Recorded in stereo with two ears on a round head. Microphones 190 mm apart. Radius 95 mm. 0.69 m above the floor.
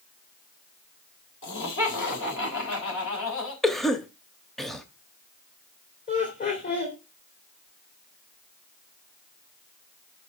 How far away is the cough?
About 0.8 m.